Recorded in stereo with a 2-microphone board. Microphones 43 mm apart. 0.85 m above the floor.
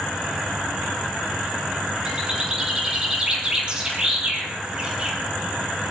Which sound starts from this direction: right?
A bird, at 2.0 s.